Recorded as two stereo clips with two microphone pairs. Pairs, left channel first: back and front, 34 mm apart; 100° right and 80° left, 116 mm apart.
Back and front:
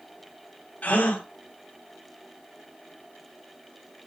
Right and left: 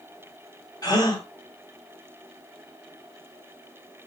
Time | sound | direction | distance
0.8 | a gasp | 145° right | 2.5 m